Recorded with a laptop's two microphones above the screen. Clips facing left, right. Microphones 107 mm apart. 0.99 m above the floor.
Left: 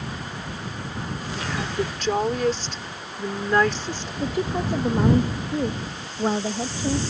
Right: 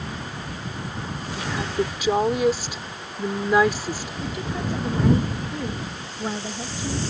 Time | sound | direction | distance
1.4 | a woman speaking | 10° right (ahead or behind) | ?
4.2 | a woman speaking | 35° left (ahead or behind) | ?